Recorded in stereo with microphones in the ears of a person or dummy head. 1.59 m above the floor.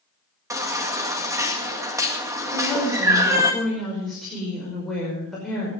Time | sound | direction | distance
0.5 | a baby crying | 10° right (ahead or behind) | 2.0 m
2.5 | a woman speaking | centre (ahead or behind) | 5.5 m